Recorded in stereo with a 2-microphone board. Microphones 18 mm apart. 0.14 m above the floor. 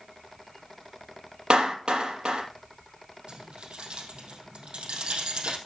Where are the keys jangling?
75° right (ahead or behind), 4 m.